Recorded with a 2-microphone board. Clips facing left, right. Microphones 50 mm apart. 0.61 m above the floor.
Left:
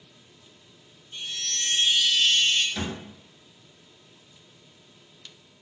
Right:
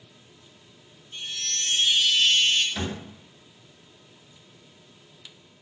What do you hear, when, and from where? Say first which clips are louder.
1.1 s a chime: even; 15° left (ahead or behind), 1.7 m
2.8 s a thud: right 1 dB; 10° right (ahead or behind), 1.4 m